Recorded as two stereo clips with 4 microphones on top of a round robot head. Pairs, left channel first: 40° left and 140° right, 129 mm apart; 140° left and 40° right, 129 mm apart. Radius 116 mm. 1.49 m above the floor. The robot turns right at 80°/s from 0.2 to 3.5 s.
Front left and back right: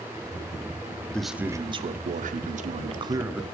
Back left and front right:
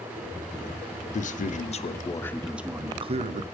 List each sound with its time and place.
1.1 s a man speaking: 120° left, 0.7 m; by 3.4 s 55° right, 0.7 m